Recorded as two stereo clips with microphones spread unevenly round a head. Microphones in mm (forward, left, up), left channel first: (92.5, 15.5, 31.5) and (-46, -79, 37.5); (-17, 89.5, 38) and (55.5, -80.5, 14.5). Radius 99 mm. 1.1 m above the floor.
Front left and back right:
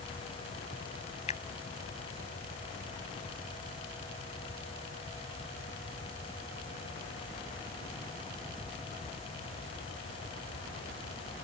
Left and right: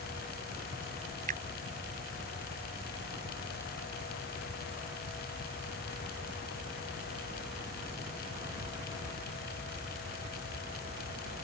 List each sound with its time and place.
1.3 s a finger snap: 15° right